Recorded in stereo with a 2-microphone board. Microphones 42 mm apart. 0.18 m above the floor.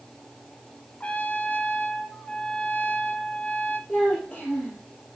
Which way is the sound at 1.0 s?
35° left (ahead or behind).